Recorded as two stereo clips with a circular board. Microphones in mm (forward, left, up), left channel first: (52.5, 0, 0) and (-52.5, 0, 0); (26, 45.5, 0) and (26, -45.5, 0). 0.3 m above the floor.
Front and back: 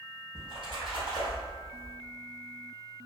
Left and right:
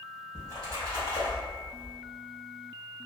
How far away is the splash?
About 1.9 m.